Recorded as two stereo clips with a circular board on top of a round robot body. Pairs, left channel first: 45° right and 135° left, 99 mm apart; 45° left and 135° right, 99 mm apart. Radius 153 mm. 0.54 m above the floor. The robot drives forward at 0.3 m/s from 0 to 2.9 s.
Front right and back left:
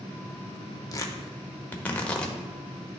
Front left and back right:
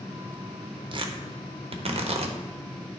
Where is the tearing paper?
100° right, 0.8 m; by 2.4 s 130° right, 1.0 m.